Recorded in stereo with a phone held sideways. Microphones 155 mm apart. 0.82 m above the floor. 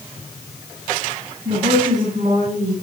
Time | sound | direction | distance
1.4 | a woman speaking | 55° right (ahead or behind) | 6 m